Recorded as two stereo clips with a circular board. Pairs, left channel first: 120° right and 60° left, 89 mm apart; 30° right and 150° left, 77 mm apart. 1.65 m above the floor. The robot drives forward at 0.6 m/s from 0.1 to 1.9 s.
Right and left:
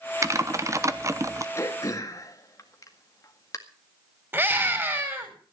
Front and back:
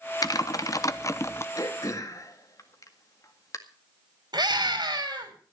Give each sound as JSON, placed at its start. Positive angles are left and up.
{"t": 0.2, "sound": "typing on a keyboard", "azimuth_deg": 5, "distance_m": 1.2}
{"t": 1.6, "sound": "throat clearing", "azimuth_deg": -65, "distance_m": 1.9}
{"t": 4.3, "sound": "a scream", "azimuth_deg": 125, "distance_m": 5.5}